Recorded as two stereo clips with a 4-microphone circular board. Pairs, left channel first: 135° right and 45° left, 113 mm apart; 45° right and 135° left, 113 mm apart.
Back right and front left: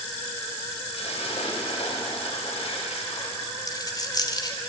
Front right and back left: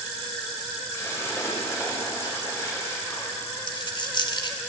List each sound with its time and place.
0.9 s a splash: 110° right, 6.5 m
3.7 s a dropped coin: 85° right, 2.5 m